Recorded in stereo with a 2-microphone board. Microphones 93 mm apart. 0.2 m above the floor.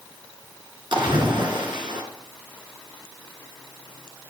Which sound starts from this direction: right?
A splash, at 0.9 s.